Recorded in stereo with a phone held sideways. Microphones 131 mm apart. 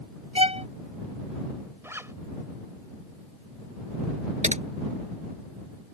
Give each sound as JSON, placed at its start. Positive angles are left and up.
{"t": 0.3, "sound": "a violin", "side_deg": -50}
{"t": 1.8, "sound": "a zipper", "side_deg": -20}
{"t": 4.4, "sound": "typing on a keyboard", "side_deg": -65}